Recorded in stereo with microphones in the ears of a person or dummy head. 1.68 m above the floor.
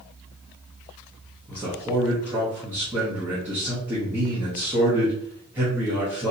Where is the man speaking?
15° right (ahead or behind), 0.9 m.